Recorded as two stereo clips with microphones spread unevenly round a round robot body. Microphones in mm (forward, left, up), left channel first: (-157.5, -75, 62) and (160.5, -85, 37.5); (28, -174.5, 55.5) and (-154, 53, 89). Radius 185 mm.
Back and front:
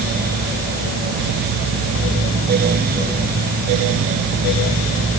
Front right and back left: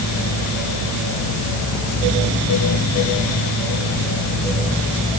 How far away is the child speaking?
I don't hear a child speaking.